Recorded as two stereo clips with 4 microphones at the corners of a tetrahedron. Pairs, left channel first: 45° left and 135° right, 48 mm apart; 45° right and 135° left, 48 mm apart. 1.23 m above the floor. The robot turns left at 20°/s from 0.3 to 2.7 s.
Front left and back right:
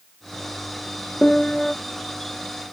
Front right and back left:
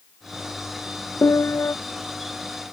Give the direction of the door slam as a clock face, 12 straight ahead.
I don't hear a door slam.